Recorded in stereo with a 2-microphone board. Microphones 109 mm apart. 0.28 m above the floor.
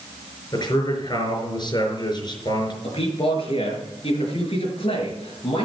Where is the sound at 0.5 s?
45° left (ahead or behind), 4.5 m.